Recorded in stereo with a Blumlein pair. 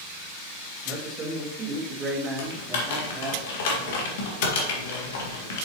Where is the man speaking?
20° right, 2 m.